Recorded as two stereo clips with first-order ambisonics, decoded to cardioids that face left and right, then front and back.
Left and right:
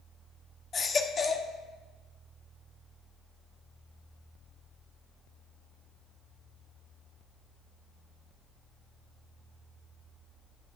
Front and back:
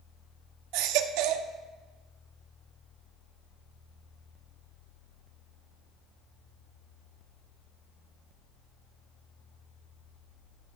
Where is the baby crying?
160° left, 0.8 m.